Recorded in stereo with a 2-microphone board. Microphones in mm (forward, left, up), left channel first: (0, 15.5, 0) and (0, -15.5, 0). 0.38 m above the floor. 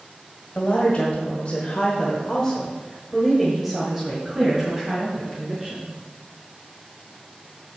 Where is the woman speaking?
40° left (ahead or behind), 1.7 m; by 5.9 s 15° right (ahead or behind), 3 m.